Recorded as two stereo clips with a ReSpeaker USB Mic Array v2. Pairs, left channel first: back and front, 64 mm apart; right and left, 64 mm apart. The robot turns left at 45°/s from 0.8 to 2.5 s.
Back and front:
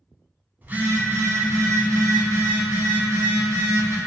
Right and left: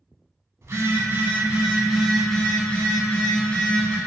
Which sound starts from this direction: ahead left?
A phone buzzing, at 0.6 s.